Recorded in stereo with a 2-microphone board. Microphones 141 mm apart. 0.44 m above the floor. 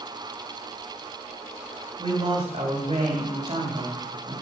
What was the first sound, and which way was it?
A man speaking, 45° right (ahead or behind).